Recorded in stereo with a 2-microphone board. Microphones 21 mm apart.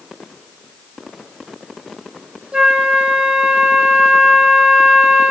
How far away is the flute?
About 5.5 m.